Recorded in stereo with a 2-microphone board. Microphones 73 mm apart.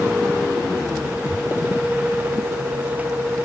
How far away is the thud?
About 6.5 m.